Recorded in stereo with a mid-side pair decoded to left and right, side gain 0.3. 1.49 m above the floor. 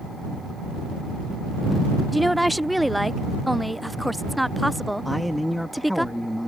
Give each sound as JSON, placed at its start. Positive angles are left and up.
{"t": 2.1, "sound": "a woman speaking", "azimuth_deg": 0}
{"t": 5.0, "sound": "a man speaking", "azimuth_deg": 5}